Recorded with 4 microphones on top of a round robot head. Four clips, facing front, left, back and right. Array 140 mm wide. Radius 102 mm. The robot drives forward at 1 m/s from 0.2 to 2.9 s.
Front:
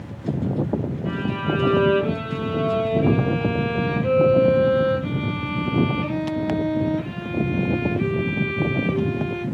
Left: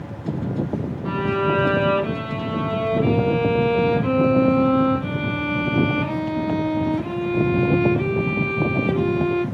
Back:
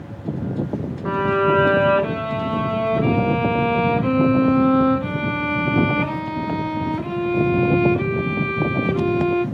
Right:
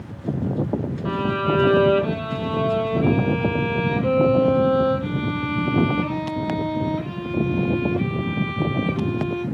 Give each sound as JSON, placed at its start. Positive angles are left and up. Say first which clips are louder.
{"t": 1.1, "sound": "a violin", "louder": "left 1 dB, back 10 dB", "azimuth_deg": -155, "distance_m": 1.3}